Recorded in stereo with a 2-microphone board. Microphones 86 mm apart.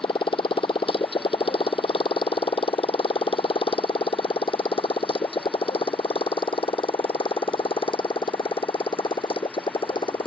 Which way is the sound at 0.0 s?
75° left (ahead or behind).